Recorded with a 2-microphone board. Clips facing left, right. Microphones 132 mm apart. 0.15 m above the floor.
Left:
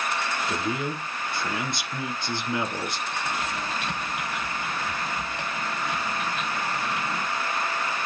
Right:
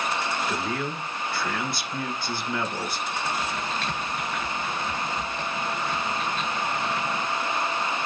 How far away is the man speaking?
About 2 m.